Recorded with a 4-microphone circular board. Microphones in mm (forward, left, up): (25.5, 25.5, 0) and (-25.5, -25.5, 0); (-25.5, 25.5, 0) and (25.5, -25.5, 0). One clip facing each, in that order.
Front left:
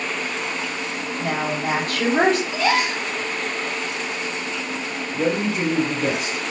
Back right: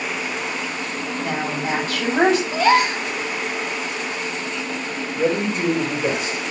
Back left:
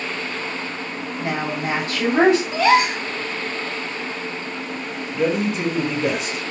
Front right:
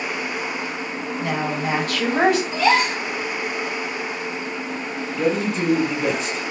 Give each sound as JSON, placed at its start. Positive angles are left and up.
{"t": 1.2, "sound": "a woman speaking", "azimuth_deg": 75, "distance_m": 2.5}
{"t": 2.5, "sound": "a gasp", "azimuth_deg": 180, "distance_m": 1.4}
{"t": 5.1, "sound": "a man speaking", "azimuth_deg": 60, "distance_m": 3.0}